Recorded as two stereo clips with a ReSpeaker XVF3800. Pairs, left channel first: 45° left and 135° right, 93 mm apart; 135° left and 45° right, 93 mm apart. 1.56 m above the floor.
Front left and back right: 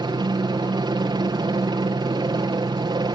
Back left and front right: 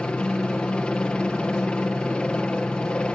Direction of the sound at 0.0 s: 150° right.